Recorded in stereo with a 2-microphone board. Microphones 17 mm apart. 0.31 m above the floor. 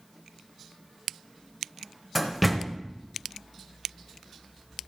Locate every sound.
2.1 s a door slam: 5° right (ahead or behind), 0.9 m